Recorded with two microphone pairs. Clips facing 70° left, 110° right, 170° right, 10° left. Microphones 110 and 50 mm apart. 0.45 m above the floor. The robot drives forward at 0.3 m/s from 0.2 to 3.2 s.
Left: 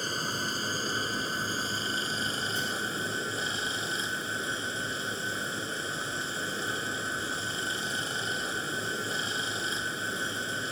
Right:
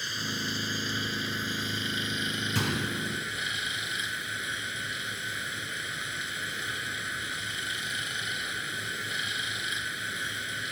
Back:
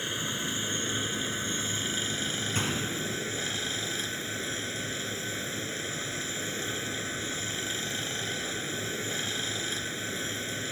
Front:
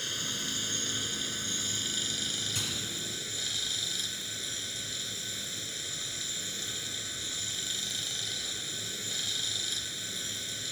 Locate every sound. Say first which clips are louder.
0.0 s running water: left 2 dB, back 4 dB; 120° left; by 10.7 s 130° left
2.5 s a gunshot: right 2 dB, back 6 dB; 120° right